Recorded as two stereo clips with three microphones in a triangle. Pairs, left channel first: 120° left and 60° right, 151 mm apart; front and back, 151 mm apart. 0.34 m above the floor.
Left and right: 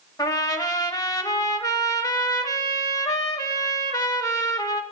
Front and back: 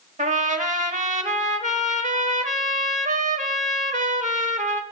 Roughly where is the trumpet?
Behind.